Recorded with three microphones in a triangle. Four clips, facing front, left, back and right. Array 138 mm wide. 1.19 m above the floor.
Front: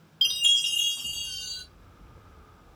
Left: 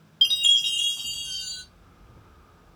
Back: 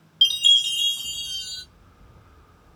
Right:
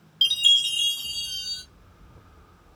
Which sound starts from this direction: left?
A chime, at 0.2 s.